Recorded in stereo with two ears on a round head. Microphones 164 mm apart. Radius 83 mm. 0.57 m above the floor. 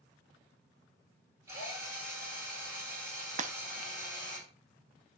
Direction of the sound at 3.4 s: 40° right (ahead or behind).